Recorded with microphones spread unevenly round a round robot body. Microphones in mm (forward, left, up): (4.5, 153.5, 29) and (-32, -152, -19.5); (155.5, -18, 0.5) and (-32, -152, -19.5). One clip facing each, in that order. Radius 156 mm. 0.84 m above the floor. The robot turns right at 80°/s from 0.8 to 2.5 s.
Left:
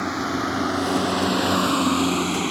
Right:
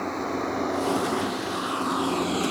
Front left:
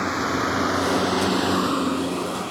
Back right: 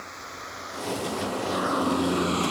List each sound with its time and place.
0.0 s a vehicle: 30° left; by 2.5 s 160° left